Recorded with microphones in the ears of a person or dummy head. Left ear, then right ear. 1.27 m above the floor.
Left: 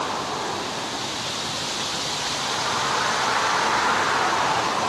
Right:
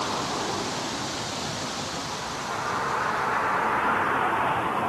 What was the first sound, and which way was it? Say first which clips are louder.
A vehicle: left 2 dB; 20° left (ahead or behind).